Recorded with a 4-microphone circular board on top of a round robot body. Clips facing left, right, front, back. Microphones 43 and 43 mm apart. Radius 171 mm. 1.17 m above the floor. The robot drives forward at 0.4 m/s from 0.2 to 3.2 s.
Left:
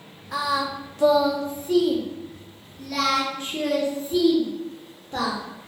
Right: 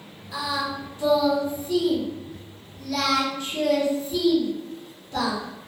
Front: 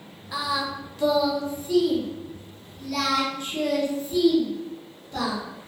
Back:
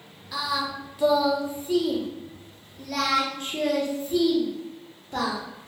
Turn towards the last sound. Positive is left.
turn(degrees=145)